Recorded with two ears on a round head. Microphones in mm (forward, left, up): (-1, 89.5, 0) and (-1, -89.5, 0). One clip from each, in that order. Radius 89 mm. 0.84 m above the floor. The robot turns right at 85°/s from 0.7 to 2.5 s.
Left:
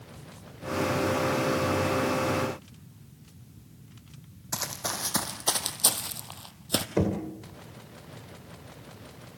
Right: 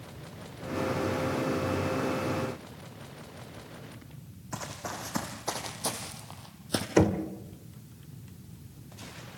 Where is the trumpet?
No trumpet in this recording.